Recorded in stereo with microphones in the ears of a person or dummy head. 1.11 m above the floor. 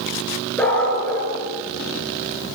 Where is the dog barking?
5° left (ahead or behind), 7 m.